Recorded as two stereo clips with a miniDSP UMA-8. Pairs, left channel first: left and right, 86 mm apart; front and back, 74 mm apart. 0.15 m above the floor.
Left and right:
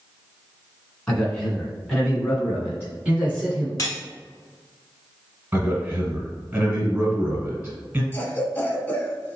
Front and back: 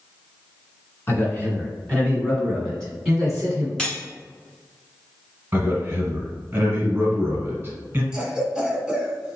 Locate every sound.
1.1 s a man speaking: 20° left, 1.9 m; by 3.7 s 115° right, 1.7 m
3.8 s cutlery clinking: 75° left, 0.9 m
5.5 s a man speaking: 145° right, 1.6 m
8.1 s a cough: 115° left, 1.1 m